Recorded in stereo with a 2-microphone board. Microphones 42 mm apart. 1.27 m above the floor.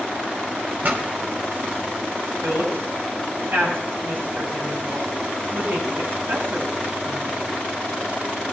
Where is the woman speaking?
60° right (ahead or behind), 6.5 m.